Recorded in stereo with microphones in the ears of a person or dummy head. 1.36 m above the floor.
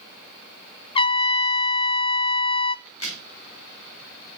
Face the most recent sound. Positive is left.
turn(degrees=80)